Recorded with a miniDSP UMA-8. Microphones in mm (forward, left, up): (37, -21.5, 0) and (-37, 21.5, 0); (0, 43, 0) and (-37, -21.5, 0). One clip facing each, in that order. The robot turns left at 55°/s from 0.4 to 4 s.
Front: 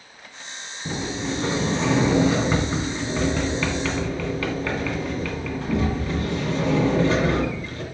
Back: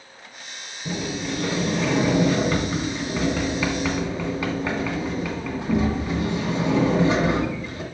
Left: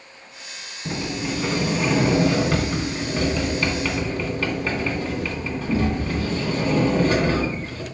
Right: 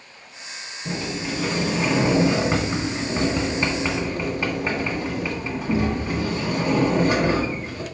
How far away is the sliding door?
About 1.7 m.